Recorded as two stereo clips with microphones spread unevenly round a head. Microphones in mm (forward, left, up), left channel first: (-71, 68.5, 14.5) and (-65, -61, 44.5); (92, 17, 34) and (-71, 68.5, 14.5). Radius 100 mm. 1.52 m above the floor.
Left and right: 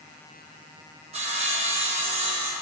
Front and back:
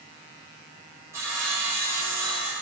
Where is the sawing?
115° right, 1.5 m.